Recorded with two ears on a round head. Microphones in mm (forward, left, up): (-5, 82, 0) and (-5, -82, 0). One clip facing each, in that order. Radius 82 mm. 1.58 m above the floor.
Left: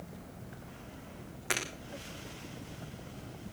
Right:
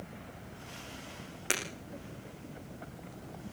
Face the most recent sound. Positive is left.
turn(degrees=-35)  # may be behind; listen again after turning